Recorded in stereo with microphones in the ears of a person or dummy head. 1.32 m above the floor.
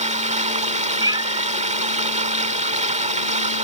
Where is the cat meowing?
20° right (ahead or behind).